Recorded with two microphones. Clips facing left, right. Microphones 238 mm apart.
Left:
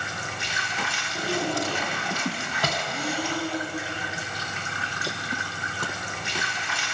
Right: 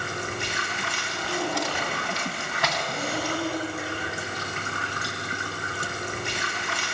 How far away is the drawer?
About 3 m.